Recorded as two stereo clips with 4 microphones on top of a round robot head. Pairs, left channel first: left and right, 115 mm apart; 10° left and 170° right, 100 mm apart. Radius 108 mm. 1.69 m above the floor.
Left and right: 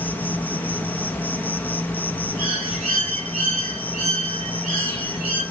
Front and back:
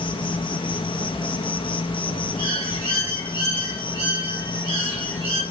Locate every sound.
0.0 s an insect: 20° left, 0.9 m
2.4 s a bird: 110° right, 6 m